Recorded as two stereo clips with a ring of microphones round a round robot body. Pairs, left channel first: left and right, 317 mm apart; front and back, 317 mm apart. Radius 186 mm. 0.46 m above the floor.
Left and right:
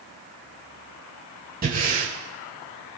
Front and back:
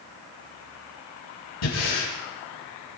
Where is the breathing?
30° right, 7 m.